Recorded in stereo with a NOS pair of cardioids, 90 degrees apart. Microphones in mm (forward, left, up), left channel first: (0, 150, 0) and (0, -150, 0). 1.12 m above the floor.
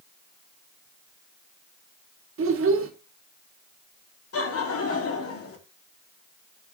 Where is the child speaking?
45° right, 1.1 m.